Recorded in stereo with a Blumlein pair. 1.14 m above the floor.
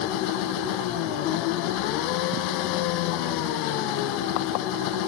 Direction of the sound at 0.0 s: 40° left.